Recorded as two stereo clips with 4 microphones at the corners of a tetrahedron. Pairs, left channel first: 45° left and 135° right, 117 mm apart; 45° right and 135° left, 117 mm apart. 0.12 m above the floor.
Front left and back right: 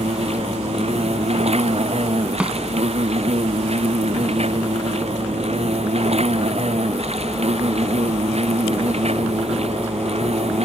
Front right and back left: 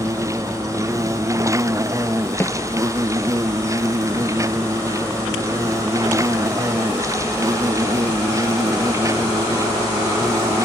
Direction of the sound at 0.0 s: 160° right.